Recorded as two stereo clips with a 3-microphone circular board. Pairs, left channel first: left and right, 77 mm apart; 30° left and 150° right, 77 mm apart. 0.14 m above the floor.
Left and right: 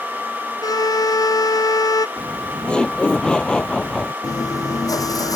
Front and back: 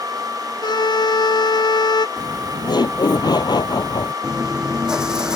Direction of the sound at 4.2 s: 130° left.